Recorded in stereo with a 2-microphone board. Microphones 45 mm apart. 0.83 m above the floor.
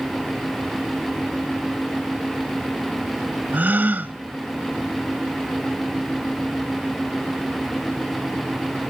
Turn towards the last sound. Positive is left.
turn(degrees=-40)  # may be behind; listen again after turning